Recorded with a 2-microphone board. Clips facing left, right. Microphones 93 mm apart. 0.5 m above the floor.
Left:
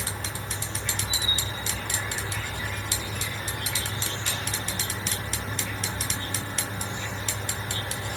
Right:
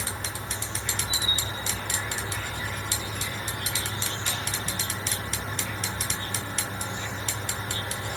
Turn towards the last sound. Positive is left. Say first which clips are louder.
# even
turn(degrees=-35)  # may be behind; listen again after turning